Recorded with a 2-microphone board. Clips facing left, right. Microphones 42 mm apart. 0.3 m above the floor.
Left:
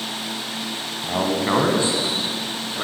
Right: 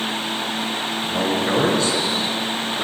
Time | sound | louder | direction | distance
1.0 | a man speaking | left 1 dB | 35° left (ahead or behind) | 2.5 m